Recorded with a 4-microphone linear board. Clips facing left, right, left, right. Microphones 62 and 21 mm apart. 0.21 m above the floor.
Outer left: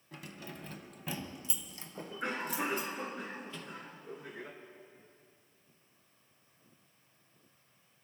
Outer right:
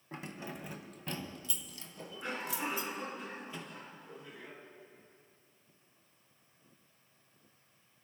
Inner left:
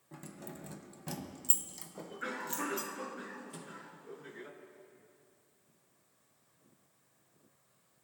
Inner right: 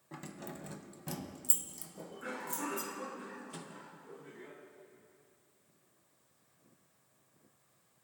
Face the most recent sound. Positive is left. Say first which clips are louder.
# even, even
turn(degrees=-15)  # may be behind; listen again after turning